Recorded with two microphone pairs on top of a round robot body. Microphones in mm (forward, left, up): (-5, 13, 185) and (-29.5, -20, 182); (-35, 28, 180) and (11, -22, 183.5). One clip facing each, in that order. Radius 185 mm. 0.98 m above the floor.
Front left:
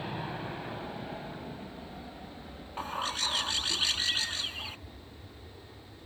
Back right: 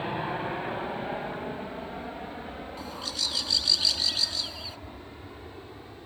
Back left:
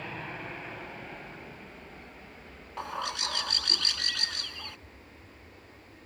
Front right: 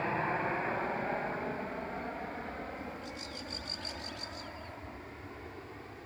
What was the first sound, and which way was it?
An aircraft, 80° right.